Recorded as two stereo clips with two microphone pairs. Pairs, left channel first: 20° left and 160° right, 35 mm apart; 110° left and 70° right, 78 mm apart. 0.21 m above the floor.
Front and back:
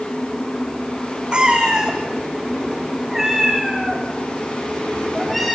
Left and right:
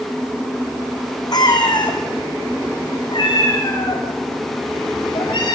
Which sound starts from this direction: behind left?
A cat meowing, at 1.3 s.